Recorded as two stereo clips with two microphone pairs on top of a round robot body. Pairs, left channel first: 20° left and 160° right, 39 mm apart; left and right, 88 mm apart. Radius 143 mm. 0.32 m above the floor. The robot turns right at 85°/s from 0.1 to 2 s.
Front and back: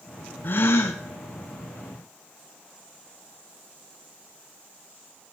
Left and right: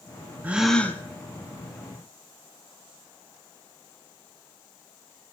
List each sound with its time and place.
0.4 s a gasp: 20° right, 0.9 m; by 1.0 s 30° left, 0.9 m